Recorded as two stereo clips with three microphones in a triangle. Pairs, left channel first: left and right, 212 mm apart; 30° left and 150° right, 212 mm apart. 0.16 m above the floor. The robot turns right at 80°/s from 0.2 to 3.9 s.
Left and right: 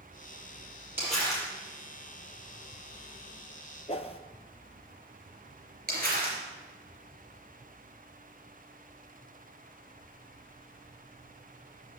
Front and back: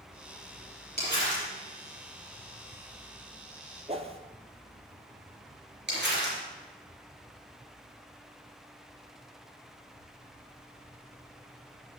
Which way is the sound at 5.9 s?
130° right.